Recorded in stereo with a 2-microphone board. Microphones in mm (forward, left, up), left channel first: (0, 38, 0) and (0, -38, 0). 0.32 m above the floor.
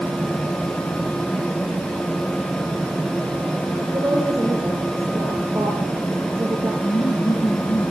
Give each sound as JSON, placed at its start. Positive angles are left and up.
{"t": 3.9, "sound": "a woman speaking", "side_deg": -25, "distance_m": 5.0}
{"t": 6.8, "sound": "laughter", "side_deg": 80, "distance_m": 7.5}